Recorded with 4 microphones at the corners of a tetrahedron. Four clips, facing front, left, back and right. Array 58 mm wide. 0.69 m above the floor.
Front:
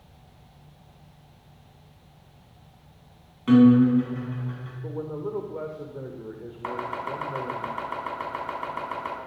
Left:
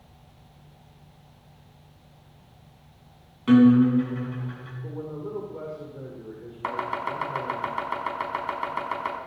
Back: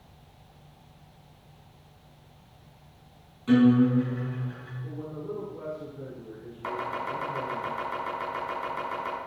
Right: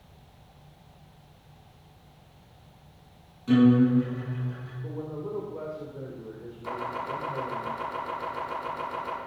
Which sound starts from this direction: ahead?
A man speaking, at 4.8 s.